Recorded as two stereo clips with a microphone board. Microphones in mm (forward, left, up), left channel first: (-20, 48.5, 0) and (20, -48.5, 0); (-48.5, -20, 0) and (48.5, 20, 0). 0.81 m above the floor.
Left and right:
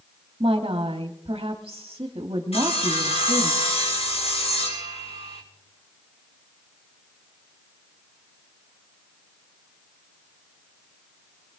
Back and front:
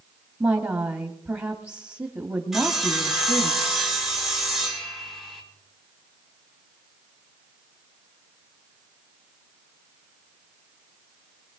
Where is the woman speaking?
35° right, 1.4 m.